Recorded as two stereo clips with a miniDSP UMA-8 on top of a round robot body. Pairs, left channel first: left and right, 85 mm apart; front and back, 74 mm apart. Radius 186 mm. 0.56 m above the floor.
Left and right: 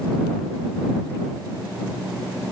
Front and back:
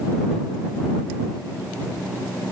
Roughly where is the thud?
No thud in this recording.